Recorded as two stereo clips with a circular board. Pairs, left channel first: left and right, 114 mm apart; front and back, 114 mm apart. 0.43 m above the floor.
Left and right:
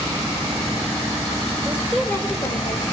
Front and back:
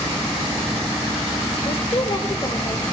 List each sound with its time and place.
1.6 s a woman speaking: 25° right, 1.1 m; by 2.8 s 65° left, 1.7 m